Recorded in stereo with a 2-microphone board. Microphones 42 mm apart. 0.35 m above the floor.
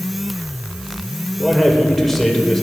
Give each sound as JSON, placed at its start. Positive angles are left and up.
{"t": 1.4, "sound": "a man speaking", "side_deg": 5, "distance_m": 1.1}